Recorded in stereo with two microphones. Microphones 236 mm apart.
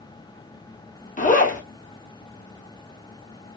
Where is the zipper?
35° left (ahead or behind), 1.0 m.